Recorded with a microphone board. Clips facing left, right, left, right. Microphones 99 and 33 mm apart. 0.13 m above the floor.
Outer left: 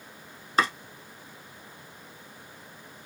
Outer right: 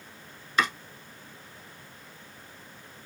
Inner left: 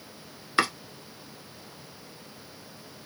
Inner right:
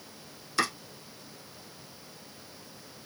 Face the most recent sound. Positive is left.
turn(degrees=35)  # may be behind; listen again after turning